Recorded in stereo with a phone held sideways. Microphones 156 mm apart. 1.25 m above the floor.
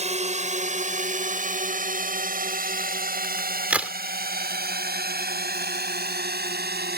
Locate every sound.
0.0 s a drone: 45° right (ahead or behind); by 7.0 s 75° right (ahead or behind)
3.2 s a crack: 10° right (ahead or behind)